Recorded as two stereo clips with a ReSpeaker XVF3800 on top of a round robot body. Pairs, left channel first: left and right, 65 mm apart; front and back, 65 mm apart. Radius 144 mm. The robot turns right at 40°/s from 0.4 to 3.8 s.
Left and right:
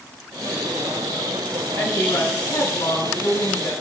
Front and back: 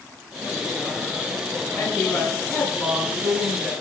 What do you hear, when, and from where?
1.8 s a woman speaking: 70° left, 7.5 m; by 3.7 s 150° left, 7.5 m